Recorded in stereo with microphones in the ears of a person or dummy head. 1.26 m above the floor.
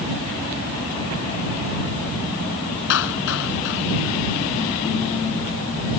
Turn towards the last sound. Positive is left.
turn(degrees=70)  # may be behind; listen again after turning